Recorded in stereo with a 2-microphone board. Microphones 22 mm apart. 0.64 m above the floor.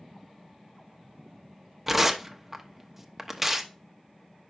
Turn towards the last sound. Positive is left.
turn(degrees=-5)  # may be behind; listen again after turning